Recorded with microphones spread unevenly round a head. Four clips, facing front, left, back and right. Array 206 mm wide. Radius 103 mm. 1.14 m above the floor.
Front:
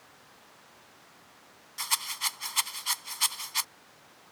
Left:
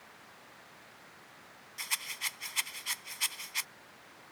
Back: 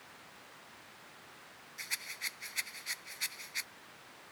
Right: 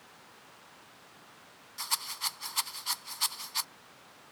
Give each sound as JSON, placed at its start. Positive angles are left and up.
{"t": 1.8, "sound": "a rattle", "azimuth_deg": -25}